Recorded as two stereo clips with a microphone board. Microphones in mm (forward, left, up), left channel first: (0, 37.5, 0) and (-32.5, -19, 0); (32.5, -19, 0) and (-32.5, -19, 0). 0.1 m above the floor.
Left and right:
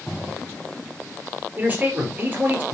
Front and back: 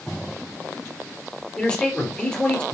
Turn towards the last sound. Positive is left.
turn(degrees=-70)